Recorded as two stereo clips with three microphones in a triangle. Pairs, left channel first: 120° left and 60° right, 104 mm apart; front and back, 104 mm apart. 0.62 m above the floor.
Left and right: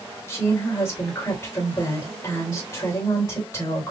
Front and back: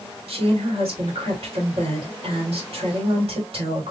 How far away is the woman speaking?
About 2.5 m.